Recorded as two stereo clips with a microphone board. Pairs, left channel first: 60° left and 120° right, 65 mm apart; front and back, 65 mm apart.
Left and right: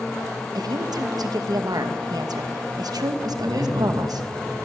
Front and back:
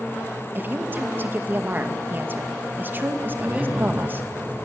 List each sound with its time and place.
0.6 s a woman speaking: 120° right, 2.5 m
3.4 s a man speaking: 110° right, 4 m